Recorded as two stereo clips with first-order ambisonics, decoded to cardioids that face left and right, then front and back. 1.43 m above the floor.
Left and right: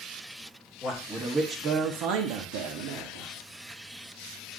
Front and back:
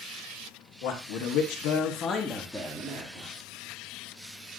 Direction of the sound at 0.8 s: 5° left.